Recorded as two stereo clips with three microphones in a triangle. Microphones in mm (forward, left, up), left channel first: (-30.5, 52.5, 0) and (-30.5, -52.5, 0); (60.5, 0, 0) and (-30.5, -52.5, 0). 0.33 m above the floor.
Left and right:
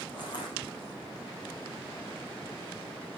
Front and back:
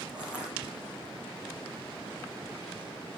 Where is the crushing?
130° left, 9.5 m.